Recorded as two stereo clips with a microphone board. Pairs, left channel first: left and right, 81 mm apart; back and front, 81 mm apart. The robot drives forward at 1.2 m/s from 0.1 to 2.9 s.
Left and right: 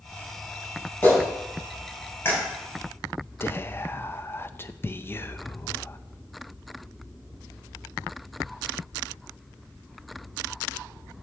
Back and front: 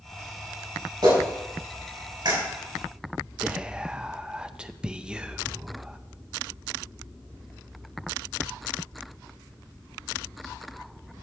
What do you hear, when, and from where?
1.0 s a clap: 20° left, 7 m; by 2.4 s 30° left, 5.5 m
3.4 s whispering: 65° left, 0.6 m